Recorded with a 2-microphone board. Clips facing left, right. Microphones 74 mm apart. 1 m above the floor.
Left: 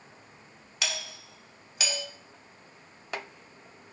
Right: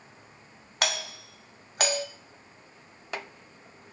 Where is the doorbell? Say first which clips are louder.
Right 5 dB; 50° right (ahead or behind), 1.2 m.